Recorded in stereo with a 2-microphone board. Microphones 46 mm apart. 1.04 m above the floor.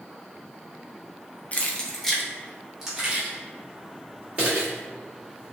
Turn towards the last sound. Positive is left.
turn(degrees=-35)  # may be behind; listen again after turning